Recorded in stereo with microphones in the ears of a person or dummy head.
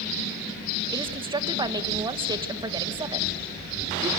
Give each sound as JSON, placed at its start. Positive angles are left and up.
{"t": 0.9, "sound": "a woman speaking", "side_deg": -20, "distance_m": 1.5}